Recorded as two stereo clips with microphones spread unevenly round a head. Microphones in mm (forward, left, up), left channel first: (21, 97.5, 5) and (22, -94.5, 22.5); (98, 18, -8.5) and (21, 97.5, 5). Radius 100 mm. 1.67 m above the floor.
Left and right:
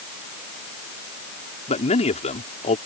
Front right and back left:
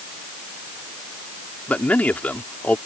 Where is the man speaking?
30° left.